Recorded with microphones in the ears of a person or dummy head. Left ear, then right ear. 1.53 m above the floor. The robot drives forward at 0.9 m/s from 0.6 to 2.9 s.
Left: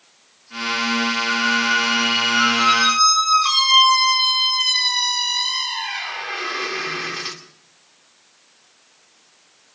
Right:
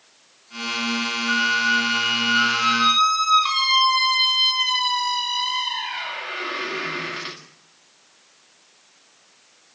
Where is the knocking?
No knocking in this recording.